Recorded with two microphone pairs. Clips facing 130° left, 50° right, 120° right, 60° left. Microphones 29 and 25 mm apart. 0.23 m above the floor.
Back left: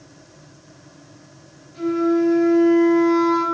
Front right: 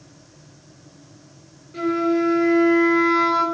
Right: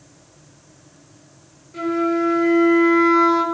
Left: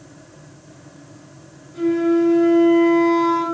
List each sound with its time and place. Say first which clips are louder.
1.7 s a flute: back left 1 dB, left 3 dB; 80° right, 3.5 m